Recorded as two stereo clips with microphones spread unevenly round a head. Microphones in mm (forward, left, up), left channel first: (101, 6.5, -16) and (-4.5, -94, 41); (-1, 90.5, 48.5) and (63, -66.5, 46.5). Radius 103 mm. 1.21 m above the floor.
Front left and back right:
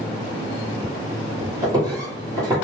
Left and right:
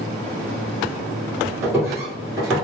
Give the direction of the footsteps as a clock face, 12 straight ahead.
5 o'clock.